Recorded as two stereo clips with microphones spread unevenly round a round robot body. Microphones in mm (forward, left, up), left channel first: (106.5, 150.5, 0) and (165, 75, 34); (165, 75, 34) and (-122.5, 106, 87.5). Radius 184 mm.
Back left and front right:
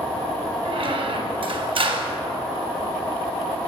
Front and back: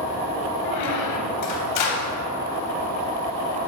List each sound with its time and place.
0.7 s a squeak: 15° right, 0.8 m